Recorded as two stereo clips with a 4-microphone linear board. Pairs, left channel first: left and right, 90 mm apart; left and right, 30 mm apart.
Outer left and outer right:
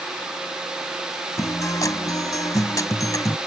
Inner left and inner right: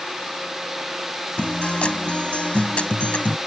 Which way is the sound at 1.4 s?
40° left (ahead or behind).